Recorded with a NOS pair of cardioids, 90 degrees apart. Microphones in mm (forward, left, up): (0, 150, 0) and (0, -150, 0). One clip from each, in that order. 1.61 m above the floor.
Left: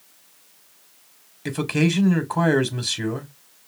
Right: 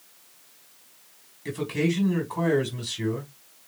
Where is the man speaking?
70° left, 1.9 m.